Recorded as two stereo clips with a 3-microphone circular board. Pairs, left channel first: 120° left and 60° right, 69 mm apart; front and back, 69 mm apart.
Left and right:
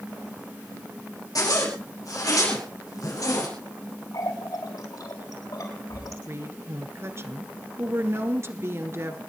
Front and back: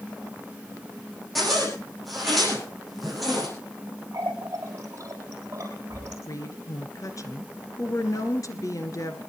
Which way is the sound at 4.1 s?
135° left.